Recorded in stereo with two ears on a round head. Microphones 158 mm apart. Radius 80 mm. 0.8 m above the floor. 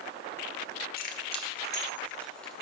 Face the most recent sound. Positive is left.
turn(degrees=5)  # may be behind; listen again after turning